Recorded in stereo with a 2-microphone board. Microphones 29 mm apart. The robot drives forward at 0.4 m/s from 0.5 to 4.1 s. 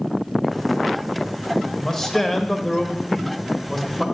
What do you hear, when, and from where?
1.7 s a man speaking: 15° left (ahead or behind), 1.1 m